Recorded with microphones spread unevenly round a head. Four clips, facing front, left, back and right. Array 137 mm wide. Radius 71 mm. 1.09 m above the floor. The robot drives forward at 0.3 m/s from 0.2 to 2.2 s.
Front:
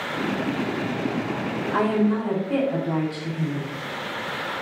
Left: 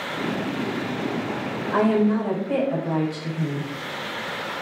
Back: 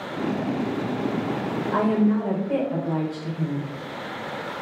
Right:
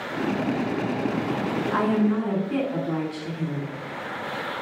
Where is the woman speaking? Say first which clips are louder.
Left 4 dB, even; 125° left, 4.5 m.